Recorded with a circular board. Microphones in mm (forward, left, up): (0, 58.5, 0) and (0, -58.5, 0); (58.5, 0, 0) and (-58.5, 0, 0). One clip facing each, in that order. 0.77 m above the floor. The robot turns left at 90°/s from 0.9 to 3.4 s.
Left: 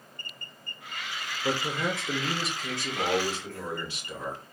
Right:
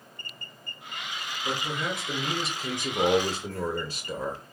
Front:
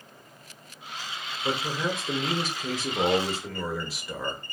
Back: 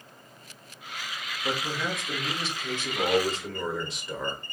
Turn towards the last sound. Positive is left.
turn(degrees=-85)